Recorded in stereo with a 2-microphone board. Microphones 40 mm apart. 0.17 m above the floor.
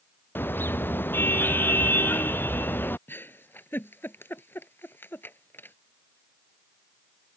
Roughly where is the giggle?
Left.